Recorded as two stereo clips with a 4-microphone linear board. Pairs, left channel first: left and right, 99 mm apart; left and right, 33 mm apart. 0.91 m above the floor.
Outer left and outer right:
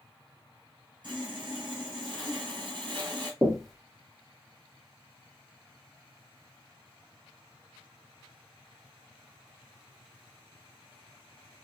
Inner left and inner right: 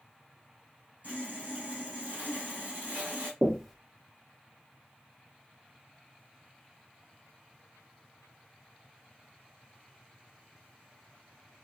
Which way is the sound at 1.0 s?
45° right (ahead or behind).